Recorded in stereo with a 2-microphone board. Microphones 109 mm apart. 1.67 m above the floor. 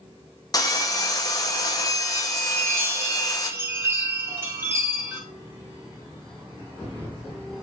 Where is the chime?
20° right (ahead or behind), 2 m.